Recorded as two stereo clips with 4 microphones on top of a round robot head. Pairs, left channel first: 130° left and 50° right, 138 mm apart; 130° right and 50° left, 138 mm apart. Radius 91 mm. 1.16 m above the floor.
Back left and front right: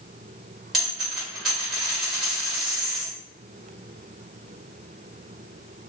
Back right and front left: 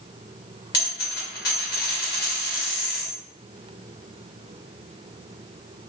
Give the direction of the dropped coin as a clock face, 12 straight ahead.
5 o'clock.